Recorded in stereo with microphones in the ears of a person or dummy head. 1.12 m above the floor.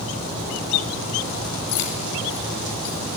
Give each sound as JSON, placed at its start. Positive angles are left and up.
{"t": 1.7, "sound": "keys jangling", "side_deg": 60, "distance_m": 3.0}